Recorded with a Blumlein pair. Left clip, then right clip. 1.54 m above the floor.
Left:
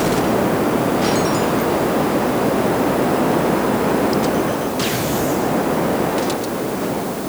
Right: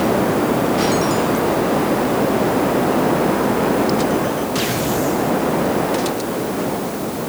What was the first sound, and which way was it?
Only background noise.